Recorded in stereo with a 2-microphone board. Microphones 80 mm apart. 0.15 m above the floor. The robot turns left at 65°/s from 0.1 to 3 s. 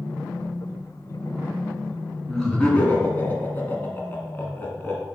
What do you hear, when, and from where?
2.3 s laughter: 175° left, 1.8 m; by 5.0 s 125° left, 1.8 m